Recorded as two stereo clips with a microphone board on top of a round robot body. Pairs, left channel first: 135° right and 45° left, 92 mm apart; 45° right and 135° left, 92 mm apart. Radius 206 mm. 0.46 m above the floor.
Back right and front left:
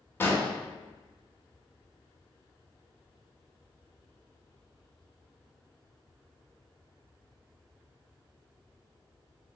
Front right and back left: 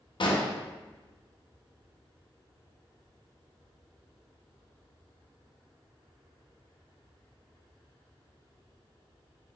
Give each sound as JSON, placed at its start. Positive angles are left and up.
{"t": 0.2, "sound": "an explosion", "azimuth_deg": -70, "distance_m": 0.9}